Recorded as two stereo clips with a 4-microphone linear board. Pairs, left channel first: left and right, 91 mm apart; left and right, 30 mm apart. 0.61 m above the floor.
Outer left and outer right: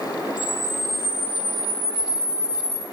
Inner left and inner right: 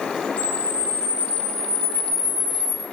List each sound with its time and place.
0.4 s a camera shutter: 60° right (ahead or behind), 3 m